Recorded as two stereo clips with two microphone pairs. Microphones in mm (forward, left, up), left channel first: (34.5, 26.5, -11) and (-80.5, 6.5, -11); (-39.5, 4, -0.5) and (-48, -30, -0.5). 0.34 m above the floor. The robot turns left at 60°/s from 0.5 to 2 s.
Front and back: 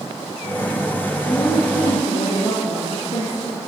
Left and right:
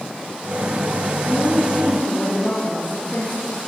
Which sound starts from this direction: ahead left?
A woman speaking, at 1.2 s.